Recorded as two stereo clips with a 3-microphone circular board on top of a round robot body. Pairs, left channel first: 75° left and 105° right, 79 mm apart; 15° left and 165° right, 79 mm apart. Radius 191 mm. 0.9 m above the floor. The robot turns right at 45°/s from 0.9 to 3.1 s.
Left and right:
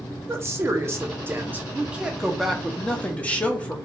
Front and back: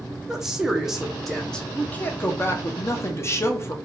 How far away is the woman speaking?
About 0.9 m.